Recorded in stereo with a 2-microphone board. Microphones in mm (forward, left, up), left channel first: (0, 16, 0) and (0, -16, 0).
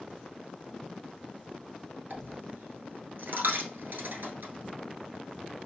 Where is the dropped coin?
75° right (ahead or behind), 1.1 m.